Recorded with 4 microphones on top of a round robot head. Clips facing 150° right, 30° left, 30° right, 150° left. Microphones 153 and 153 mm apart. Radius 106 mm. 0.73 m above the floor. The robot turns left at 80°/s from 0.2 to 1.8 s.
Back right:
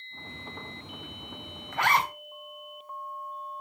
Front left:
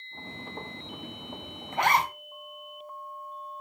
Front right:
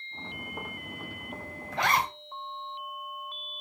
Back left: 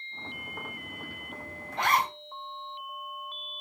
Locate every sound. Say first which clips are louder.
1.7 s a zipper: front left 1 dB, even; 35° right, 3.5 m; by 2.1 s 40° right, 3.5 m